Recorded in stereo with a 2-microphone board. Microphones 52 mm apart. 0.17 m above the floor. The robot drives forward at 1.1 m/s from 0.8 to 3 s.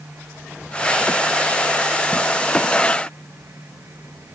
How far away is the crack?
No crack in this recording.